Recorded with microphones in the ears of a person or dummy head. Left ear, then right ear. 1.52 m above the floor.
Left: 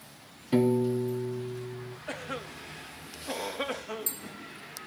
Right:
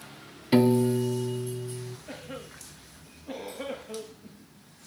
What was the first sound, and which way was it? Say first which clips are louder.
A piano: right 3 dB; 25° right (ahead or behind).